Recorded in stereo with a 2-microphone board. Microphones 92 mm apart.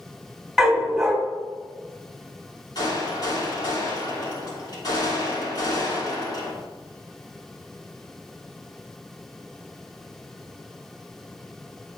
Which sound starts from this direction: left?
A gunshot, at 2.8 s.